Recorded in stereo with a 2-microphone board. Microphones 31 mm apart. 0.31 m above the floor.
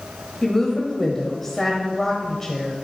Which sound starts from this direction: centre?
A woman speaking, at 0.4 s.